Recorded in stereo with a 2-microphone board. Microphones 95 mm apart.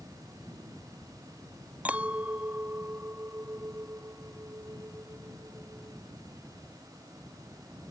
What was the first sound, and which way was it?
A clink, 15° right (ahead or behind).